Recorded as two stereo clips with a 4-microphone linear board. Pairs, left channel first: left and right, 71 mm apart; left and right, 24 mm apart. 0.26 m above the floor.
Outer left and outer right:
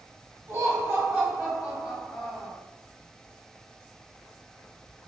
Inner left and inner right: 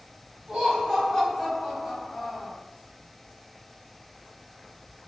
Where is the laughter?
40° right (ahead or behind), 1.3 m; by 2.5 s 10° left (ahead or behind), 1.3 m.